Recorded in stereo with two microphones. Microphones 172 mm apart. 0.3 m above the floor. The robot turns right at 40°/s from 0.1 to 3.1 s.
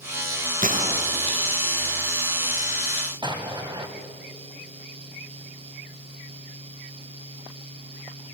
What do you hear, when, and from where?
0.6 s a gunshot: 55° right (ahead or behind), 1.8 m; by 1.6 s 20° right (ahead or behind), 1.8 m
3.2 s an explosion: 25° right (ahead or behind), 2.5 m